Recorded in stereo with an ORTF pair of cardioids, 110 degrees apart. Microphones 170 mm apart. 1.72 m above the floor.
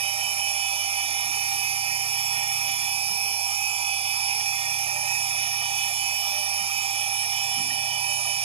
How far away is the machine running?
About 1.1 m.